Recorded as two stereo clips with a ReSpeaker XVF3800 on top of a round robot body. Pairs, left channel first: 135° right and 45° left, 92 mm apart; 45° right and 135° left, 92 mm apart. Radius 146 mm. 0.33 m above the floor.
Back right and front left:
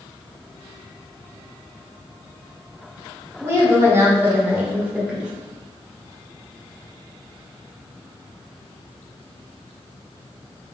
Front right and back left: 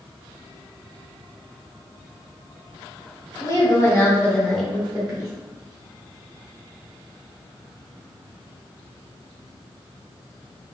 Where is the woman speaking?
10° right, 1.7 m; by 5.3 s 130° left, 1.2 m.